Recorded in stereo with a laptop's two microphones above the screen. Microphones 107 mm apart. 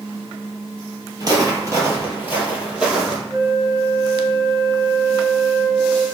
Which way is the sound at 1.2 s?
35° right (ahead or behind).